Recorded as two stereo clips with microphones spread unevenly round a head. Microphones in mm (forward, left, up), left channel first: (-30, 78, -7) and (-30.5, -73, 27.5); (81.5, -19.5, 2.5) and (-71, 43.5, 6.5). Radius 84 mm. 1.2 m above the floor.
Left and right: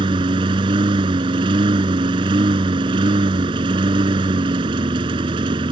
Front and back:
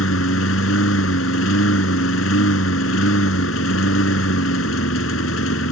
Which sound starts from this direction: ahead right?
A lawn mower, at 0.0 s.